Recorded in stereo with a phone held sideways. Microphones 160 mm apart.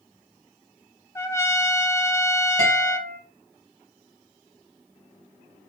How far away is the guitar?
About 2.5 m.